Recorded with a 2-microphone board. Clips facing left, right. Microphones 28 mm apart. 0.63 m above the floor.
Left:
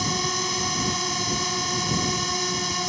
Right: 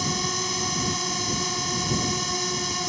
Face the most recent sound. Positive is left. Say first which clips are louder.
# left 1 dB
turn(degrees=10)  # may be behind; listen again after turning